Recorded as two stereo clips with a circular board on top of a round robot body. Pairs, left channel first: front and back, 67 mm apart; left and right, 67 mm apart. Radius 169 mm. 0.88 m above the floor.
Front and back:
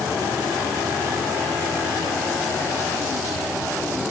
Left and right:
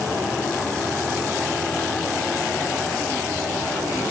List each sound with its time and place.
Only background noise.